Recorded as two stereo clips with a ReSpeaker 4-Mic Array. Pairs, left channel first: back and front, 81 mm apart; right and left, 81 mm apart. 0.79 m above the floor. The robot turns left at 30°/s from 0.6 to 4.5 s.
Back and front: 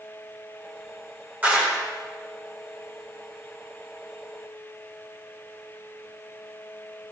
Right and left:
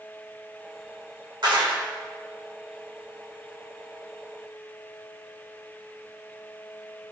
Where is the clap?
70° left, 1.7 m; by 1.8 s 55° left, 1.7 m.